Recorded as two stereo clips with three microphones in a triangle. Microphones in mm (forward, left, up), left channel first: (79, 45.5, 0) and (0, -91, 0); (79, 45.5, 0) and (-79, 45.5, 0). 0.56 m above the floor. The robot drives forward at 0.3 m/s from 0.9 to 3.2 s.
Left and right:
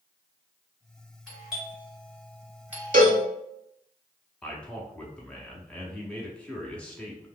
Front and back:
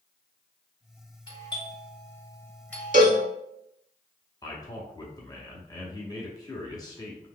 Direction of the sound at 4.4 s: 15° right.